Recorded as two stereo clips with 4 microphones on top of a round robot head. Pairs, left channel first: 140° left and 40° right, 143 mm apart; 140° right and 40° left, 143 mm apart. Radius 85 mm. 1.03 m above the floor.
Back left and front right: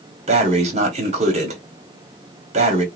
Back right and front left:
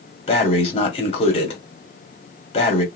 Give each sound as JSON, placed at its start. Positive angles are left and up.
{"t": 0.3, "sound": "breathing", "azimuth_deg": -85, "distance_m": 1.4}